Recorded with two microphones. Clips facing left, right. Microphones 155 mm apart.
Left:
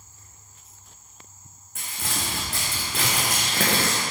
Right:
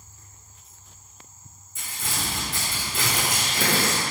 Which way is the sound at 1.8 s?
65° left (ahead or behind).